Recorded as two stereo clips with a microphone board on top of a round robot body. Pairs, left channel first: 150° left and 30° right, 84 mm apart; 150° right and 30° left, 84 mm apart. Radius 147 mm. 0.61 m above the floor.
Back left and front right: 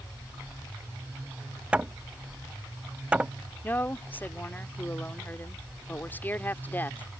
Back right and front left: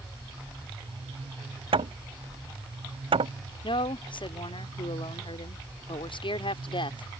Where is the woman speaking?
140° right.